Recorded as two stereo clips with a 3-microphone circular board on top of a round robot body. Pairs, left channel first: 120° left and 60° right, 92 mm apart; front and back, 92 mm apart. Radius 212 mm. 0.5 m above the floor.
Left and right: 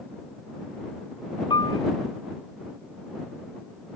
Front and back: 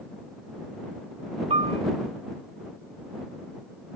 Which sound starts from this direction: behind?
A piano, at 1.5 s.